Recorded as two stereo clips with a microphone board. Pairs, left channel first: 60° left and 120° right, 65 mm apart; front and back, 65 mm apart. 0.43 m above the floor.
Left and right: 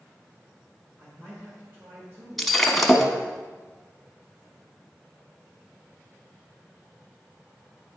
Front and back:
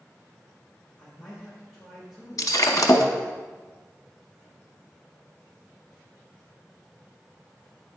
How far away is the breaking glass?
About 0.7 m.